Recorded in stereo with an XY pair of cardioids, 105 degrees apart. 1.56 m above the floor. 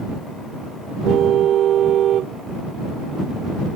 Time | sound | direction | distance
1.1 | a car horn | 65° right | ?